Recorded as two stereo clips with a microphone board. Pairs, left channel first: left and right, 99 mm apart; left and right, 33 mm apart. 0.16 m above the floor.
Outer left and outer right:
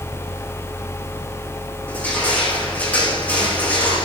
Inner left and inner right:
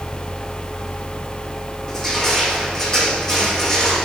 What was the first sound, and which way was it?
Crushing, 15° left (ahead or behind).